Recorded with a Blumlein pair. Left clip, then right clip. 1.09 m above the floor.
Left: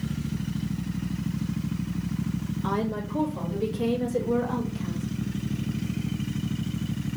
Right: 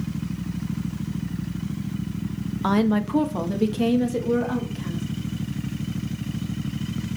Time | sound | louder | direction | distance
2.6 | a woman speaking | right 7 dB | 30° right | 0.7 m